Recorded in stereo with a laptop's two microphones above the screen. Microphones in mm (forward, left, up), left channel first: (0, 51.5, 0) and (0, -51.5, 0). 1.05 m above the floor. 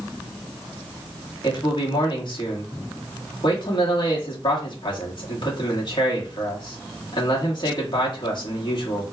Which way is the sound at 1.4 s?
50° left (ahead or behind).